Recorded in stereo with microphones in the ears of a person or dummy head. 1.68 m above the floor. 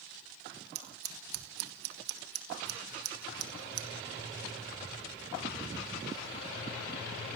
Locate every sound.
0.8 s scissors: 55° right (ahead or behind), 1.1 m